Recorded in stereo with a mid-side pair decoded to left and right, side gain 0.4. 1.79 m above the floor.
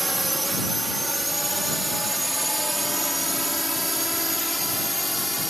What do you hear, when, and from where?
0.0 s a drone: 20° right; by 5.5 s straight ahead